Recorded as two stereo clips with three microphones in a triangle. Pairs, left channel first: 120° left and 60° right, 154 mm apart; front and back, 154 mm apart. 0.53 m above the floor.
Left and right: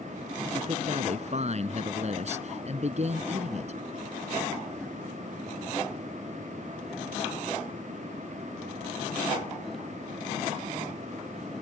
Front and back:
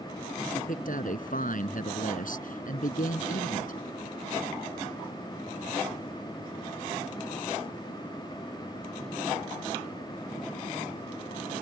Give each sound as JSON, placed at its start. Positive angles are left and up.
{"t": 0.5, "sound": "a man speaking", "azimuth_deg": -20}